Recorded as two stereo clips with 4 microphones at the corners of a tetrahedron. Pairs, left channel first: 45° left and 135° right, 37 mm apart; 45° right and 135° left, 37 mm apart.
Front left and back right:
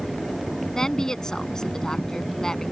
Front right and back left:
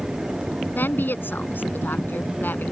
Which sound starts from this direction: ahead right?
A woman speaking, at 0.8 s.